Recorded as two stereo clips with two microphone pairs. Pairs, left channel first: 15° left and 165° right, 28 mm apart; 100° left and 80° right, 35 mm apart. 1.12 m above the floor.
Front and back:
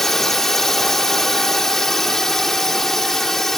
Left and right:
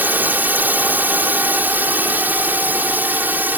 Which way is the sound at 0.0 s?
60° right.